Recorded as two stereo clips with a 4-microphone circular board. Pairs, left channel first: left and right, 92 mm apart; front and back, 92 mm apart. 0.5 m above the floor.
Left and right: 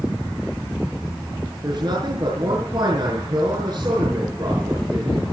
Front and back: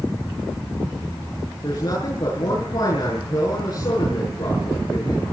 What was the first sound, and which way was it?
A man speaking, 45° right.